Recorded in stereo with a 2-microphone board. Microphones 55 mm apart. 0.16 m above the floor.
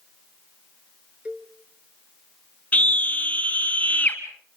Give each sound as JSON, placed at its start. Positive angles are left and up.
{"t": 1.2, "sound": "a cowbell", "side_deg": -25, "distance_m": 1.2}
{"t": 2.7, "sound": "a scream", "side_deg": 30, "distance_m": 1.4}